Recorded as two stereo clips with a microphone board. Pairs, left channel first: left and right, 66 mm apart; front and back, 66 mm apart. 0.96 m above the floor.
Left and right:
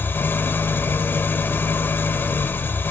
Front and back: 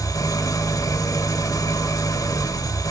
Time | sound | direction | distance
0.0 | an engine running | 30° left | 1.7 m